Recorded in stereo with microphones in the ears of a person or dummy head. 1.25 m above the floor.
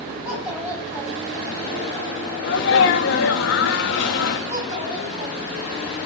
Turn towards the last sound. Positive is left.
turn(degrees=-40)  # may be behind; listen again after turning